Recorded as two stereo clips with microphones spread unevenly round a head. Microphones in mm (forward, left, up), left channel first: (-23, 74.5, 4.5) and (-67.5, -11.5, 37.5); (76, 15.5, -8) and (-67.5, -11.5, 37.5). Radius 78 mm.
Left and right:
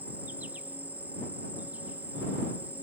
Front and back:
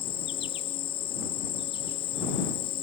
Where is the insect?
30° right.